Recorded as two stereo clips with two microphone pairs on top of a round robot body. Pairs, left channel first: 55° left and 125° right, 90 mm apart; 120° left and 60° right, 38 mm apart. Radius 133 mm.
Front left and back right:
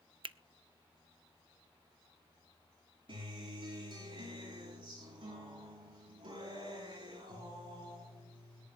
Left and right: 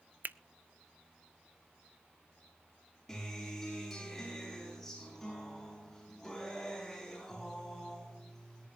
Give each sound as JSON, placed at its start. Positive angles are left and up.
{"t": 0.2, "sound": "a finger snap", "azimuth_deg": -100, "distance_m": 0.7}
{"t": 3.1, "sound": "a guitar", "azimuth_deg": -155, "distance_m": 7.5}